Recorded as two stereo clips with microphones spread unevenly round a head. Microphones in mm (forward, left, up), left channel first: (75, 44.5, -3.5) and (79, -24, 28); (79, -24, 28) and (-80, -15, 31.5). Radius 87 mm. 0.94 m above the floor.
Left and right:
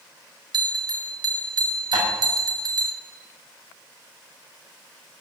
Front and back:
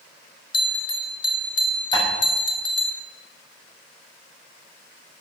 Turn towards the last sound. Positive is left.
turn(degrees=-70)